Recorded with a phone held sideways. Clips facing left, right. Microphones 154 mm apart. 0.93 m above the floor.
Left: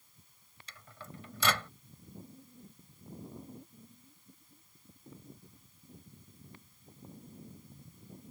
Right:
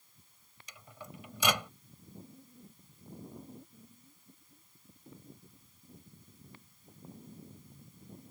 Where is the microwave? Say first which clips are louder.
Right 1 dB; 15° right (ahead or behind).